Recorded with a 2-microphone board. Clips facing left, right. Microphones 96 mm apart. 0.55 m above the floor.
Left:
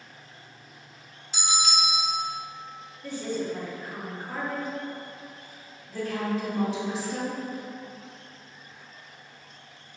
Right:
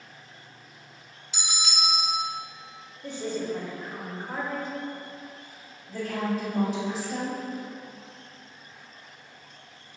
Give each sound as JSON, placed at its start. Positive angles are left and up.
{"t": 1.3, "sound": "a bell", "side_deg": 40, "distance_m": 0.8}
{"t": 3.0, "sound": "a woman speaking", "side_deg": -20, "distance_m": 0.7}
{"t": 5.9, "sound": "a woman speaking", "side_deg": -50, "distance_m": 1.7}